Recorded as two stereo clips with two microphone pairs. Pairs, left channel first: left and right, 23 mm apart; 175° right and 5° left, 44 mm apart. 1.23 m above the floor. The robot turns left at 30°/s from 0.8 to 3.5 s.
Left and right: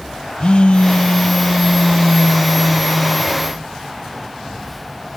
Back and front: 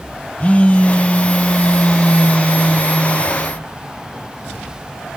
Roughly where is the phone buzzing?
Behind left.